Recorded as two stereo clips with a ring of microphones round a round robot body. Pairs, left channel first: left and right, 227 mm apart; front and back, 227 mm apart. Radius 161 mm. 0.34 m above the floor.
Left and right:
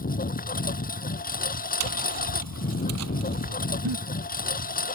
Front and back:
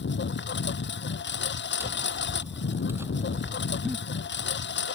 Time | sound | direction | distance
0.0 | a lawn mower | 40° left | ?
1.8 | tapping | 95° right | ?
3.9 | a giggle | 90° right | ?